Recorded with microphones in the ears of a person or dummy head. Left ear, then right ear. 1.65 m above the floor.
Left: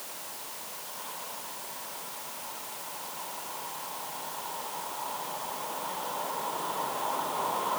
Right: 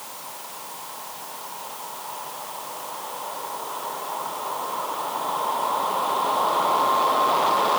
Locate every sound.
Only background noise.